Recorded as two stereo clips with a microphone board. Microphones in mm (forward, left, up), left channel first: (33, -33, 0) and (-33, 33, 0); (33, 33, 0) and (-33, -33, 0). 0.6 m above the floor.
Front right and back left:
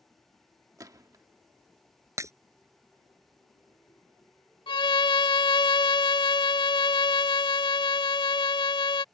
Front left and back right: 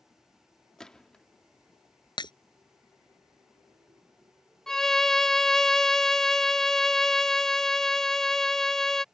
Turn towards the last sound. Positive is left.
turn(degrees=-40)